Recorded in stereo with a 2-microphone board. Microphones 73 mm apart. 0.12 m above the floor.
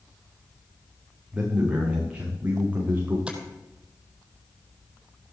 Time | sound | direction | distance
1.3 | a man speaking | 15° right (ahead or behind) | 8.5 m
3.3 | tapping | 10° right (ahead or behind) | 3.5 m